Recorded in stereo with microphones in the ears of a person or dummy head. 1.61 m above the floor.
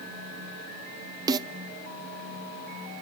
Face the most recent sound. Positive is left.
turn(degrees=-25)  # may be behind; listen again after turning